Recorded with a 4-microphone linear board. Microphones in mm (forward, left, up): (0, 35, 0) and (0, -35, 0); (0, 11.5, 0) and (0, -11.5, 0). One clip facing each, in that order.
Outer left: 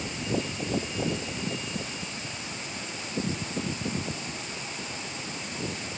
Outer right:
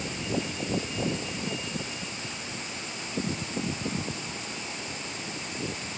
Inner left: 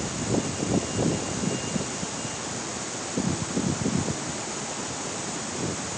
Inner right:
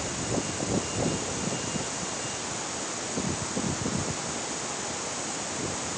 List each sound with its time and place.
Only background noise.